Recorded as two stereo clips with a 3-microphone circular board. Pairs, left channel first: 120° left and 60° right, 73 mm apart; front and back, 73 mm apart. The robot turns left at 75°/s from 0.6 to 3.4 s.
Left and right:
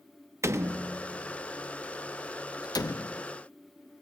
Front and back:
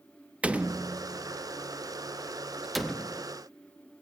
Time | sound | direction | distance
0.4 | a door slam | 105° right | 0.6 m